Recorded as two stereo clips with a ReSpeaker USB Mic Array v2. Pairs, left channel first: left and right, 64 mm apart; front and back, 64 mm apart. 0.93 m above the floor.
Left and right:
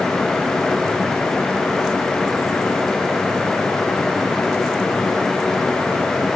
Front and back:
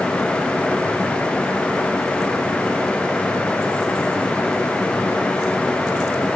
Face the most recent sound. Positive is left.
No sound to turn to.